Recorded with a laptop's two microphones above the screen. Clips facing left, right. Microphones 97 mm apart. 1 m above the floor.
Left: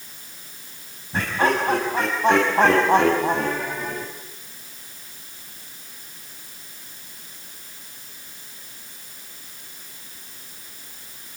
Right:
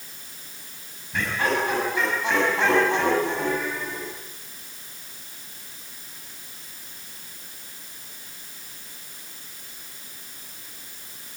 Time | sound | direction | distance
1.1 | laughter | 35° left (ahead or behind) | 7 m